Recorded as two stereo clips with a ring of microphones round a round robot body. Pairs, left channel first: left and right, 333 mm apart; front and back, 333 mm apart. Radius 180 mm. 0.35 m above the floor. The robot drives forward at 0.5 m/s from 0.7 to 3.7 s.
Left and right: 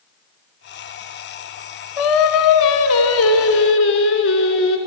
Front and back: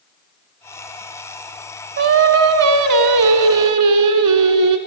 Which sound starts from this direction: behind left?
Singing, at 2.0 s.